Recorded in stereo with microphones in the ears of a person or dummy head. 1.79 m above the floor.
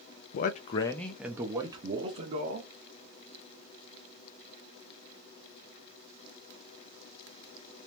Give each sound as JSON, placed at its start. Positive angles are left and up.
{"t": 0.3, "sound": "a man speaking", "side_deg": 50, "distance_m": 0.5}